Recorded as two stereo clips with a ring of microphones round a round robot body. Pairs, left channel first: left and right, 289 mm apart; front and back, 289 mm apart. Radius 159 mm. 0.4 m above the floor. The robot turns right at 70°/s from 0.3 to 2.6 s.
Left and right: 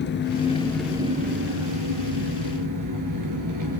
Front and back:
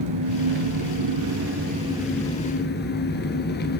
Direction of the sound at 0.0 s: 145° left.